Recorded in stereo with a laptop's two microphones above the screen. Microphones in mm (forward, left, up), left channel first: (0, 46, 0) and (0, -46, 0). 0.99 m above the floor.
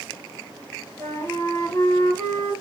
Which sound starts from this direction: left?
A flute, at 1.0 s.